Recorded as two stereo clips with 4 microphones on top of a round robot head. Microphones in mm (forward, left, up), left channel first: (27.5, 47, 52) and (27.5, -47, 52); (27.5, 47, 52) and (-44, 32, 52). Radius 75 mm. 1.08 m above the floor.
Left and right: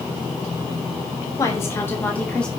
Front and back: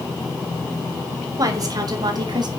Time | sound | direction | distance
1.4 | a woman speaking | 155° left | 3 m